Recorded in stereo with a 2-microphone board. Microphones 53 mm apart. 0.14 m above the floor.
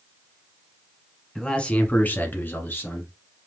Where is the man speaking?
10° left (ahead or behind), 1.2 m; by 3.1 s 40° left (ahead or behind), 1.8 m.